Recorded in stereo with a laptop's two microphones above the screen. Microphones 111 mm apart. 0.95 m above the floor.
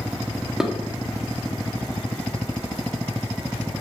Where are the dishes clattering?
5° right (ahead or behind), 1.2 m.